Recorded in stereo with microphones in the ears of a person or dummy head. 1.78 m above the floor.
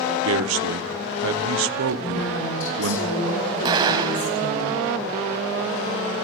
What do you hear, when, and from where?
0.2 s a man speaking: 85° right, 1.5 m
2.0 s a woman speaking: 80° left, 6.5 m
3.6 s an explosion: 25° right (ahead or behind), 3 m